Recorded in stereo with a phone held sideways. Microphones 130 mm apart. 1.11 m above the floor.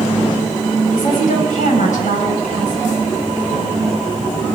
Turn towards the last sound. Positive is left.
turn(degrees=85)